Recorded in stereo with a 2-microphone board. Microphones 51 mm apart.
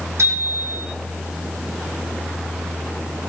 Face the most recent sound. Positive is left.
turn(degrees=-75)  # may be behind; listen again after turning